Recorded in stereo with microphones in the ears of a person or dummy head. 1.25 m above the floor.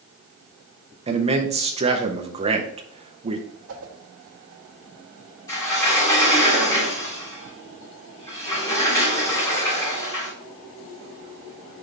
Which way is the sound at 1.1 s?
30° right (ahead or behind).